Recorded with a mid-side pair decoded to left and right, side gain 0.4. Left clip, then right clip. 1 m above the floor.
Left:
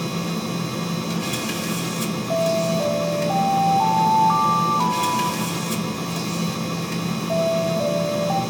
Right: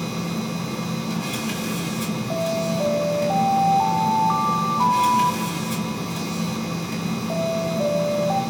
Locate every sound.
0.0 s a machine running: 50° left, 2 m
2.3 s an alarm: straight ahead, 1.3 m